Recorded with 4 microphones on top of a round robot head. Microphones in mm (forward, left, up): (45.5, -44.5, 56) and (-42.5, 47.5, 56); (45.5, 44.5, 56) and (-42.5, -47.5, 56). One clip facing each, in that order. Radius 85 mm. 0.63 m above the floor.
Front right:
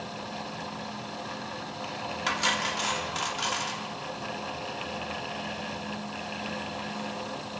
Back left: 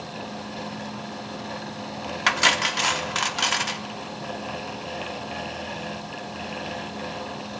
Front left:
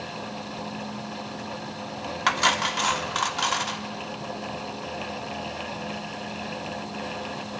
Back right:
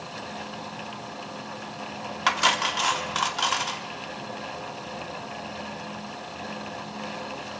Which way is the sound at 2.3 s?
140° left.